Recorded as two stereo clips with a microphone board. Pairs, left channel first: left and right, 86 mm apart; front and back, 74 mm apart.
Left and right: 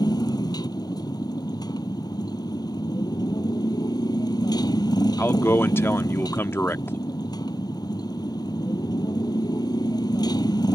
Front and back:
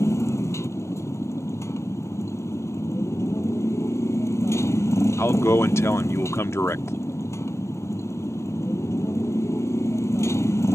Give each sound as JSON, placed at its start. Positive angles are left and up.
{"t": 0.0, "sound": "a motorcycle", "azimuth_deg": 50}
{"t": 5.2, "sound": "a man speaking", "azimuth_deg": 35}